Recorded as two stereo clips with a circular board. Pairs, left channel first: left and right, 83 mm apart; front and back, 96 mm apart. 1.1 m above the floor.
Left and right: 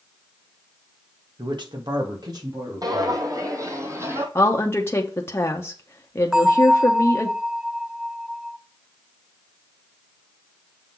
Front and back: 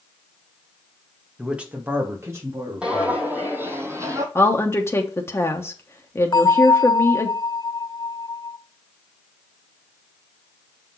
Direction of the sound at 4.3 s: 50° left.